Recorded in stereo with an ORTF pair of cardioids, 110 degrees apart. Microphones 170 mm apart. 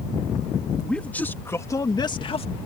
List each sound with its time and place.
0.8 s a man speaking: 5° left; by 2.5 s 35° left